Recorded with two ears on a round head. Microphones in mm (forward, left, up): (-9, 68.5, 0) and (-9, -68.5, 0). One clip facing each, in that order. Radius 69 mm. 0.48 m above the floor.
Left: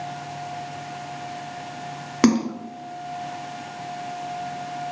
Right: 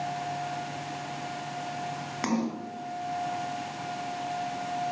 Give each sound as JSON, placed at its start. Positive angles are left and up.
{"t": 2.2, "sound": "a splash", "side_deg": 65, "distance_m": 2.0}